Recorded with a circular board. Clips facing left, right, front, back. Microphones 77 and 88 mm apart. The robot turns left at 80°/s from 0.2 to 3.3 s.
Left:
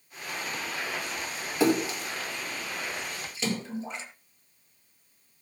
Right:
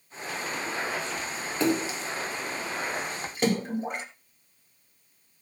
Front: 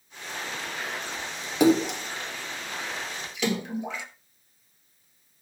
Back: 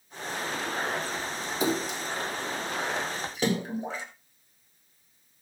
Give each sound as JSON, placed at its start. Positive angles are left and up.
{"t": 1.6, "sound": "a splash", "azimuth_deg": 5, "distance_m": 1.5}